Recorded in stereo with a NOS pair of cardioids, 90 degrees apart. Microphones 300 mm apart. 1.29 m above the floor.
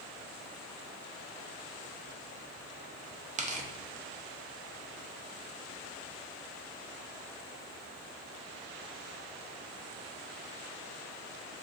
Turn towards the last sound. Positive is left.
turn(degrees=-25)